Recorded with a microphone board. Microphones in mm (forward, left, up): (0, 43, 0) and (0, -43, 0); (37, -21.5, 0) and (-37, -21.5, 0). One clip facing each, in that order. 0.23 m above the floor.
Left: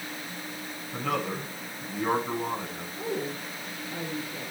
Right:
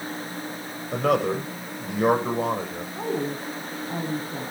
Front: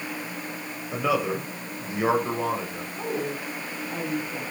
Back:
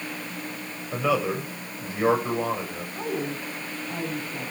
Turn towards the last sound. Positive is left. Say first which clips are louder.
# right 5 dB, even
turn(degrees=-90)